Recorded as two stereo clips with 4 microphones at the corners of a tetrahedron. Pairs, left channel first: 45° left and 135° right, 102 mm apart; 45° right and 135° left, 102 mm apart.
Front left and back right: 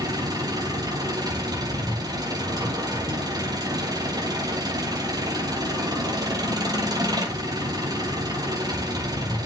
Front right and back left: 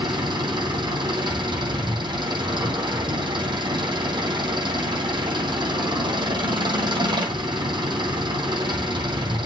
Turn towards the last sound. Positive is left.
turn(degrees=175)